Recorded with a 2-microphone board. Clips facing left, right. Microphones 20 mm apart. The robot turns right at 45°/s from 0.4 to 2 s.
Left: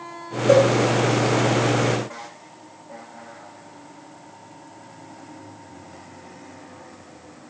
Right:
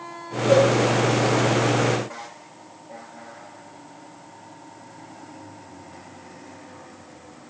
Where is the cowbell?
80° left, 5 m; by 0.7 s 75° left (ahead or behind), 5 m.